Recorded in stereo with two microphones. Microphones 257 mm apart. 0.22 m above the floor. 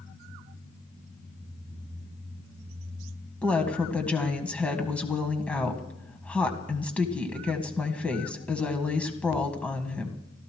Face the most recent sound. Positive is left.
turn(degrees=5)  # may be behind; listen again after turning